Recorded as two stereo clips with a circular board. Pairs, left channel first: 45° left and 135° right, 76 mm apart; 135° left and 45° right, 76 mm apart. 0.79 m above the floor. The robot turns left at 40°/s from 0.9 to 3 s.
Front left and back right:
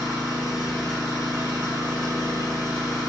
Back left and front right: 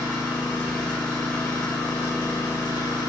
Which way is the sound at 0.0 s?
125° right.